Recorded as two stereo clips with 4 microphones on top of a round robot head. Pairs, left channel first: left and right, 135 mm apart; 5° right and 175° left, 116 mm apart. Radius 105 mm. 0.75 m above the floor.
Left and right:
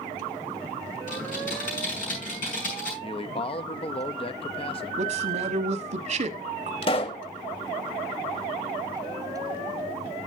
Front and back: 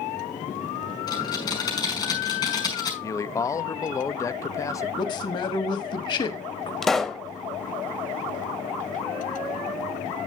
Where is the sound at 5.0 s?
55° right, 1.2 m.